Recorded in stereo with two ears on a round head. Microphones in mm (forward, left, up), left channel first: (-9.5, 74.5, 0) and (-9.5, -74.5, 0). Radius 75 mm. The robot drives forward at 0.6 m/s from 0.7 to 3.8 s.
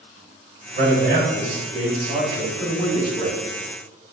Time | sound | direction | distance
0.8 | a man speaking | 55° right (ahead or behind) | 2.5 m